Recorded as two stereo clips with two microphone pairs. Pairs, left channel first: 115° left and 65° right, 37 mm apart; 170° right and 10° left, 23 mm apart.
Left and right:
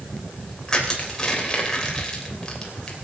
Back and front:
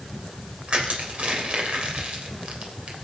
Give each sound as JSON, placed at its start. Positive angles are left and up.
{"t": 0.7, "sound": "crushing", "azimuth_deg": 45, "distance_m": 3.0}